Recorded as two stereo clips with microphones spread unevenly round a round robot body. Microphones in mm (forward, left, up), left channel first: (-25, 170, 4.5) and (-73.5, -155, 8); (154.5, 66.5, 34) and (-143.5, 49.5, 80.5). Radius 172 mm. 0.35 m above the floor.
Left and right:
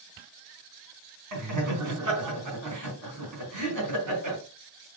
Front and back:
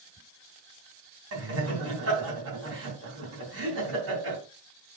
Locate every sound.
1.3 s laughter: 130° right, 3.5 m